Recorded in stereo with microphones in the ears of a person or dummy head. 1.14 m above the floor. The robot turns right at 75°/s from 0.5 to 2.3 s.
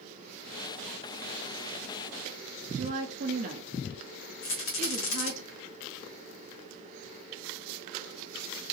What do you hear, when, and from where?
2.7 s a woman speaking: 40° right (ahead or behind), 0.7 m
4.4 s a rattle: 70° left (ahead or behind), 1.7 m